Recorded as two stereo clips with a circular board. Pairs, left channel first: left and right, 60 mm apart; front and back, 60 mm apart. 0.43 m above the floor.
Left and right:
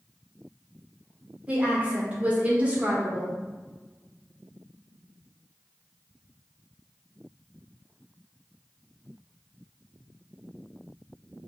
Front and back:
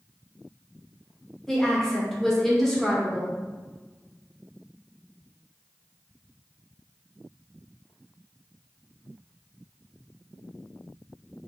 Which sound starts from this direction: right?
A woman speaking, at 1.5 s.